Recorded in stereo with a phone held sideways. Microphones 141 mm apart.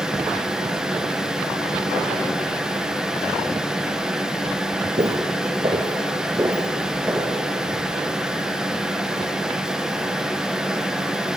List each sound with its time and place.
0.0 s a fan: 5° right (ahead or behind), 1.5 m
5.0 s footsteps: 45° right (ahead or behind), 1.8 m; by 7.3 s 15° right (ahead or behind), 3 m